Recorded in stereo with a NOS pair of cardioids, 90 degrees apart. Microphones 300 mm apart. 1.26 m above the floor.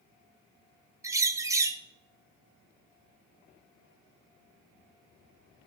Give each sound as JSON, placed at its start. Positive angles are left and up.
{"t": 1.0, "sound": "a bird", "azimuth_deg": -10, "distance_m": 0.8}